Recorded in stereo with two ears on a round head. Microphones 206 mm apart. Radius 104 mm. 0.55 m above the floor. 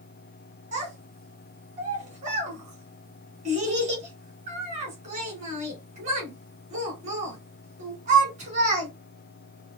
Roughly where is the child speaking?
Right.